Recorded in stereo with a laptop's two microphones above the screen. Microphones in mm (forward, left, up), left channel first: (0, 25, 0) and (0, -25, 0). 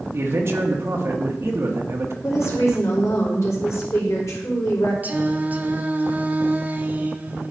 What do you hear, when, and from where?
0.1 s a man speaking: 55° right (ahead or behind), 1.5 m
2.2 s a woman speaking: 75° left (ahead or behind), 4 m
5.0 s singing: 35° right (ahead or behind), 0.8 m